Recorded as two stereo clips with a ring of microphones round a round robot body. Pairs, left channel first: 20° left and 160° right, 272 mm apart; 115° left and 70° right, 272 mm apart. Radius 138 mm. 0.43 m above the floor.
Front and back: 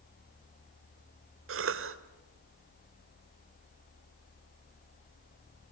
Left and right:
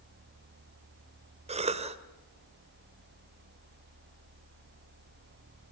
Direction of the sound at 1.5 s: 130° right.